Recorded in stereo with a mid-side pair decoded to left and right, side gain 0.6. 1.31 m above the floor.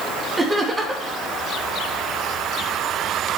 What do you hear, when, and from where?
0.4 s laughter: 20° right, 2.5 m